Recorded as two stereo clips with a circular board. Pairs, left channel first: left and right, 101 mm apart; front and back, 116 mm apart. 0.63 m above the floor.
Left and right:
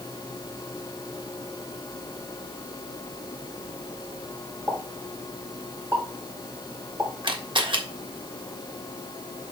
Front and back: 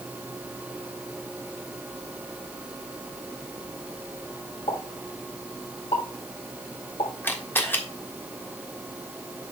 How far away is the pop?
About 3 m.